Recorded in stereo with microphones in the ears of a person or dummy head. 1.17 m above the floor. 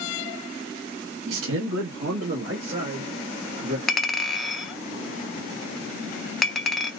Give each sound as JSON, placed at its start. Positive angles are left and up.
{"t": 1.3, "sound": "a man speaking", "side_deg": -70, "distance_m": 1.0}
{"t": 3.9, "sound": "a clink", "side_deg": 5, "distance_m": 0.6}